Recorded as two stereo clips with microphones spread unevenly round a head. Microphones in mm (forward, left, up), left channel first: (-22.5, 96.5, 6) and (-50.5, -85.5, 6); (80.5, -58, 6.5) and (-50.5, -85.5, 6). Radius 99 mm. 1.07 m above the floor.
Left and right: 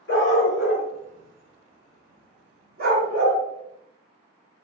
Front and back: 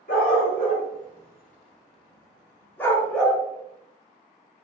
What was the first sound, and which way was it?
A dog barking, 50° left.